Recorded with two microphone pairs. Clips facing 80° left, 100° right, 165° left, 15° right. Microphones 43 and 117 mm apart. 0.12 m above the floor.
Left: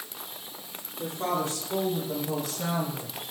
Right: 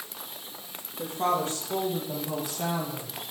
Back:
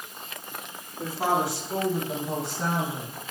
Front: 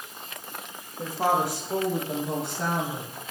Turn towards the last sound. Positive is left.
turn(degrees=-25)